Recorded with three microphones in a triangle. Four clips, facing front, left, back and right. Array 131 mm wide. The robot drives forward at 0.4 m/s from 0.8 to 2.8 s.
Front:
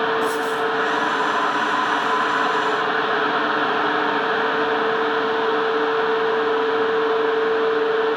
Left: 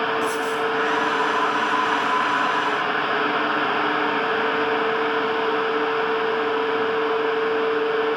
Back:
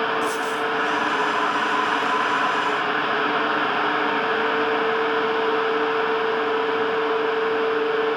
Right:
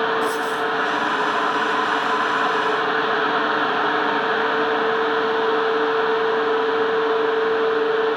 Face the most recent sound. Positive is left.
turn(degrees=175)